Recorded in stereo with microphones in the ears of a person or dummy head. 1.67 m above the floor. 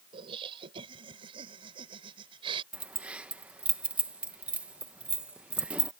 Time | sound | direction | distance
0.1 | laughter | 25° right (ahead or behind) | ?
2.7 | keys jangling | 5° right (ahead or behind) | ?